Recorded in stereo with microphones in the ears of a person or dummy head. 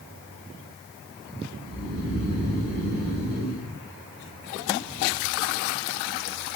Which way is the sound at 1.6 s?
60° right (ahead or behind).